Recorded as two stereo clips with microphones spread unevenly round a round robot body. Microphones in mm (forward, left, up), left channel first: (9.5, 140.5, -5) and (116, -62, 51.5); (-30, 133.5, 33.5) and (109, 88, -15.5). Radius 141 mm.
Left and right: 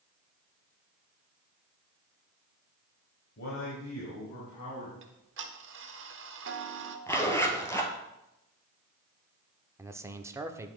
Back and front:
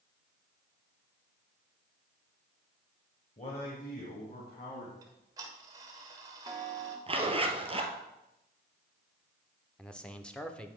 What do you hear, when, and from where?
3.4 s a man speaking: 105° left, 2.0 m; by 4.9 s 140° left, 3 m
5.0 s ticking: 40° right, 1.2 m
7.1 s a zipper: 35° left, 1.9 m
9.8 s a man speaking: 35° left, 0.8 m